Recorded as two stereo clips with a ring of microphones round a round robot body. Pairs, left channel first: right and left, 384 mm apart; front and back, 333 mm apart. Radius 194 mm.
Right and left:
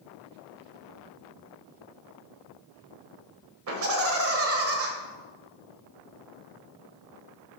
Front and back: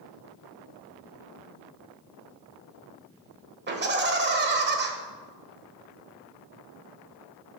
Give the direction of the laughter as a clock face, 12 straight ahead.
8 o'clock.